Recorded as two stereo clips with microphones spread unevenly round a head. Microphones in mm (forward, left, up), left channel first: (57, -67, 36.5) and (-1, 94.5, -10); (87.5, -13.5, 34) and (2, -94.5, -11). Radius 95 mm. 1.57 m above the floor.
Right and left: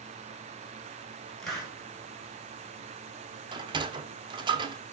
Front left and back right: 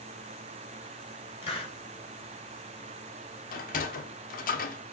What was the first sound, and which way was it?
A hiss, 10° left.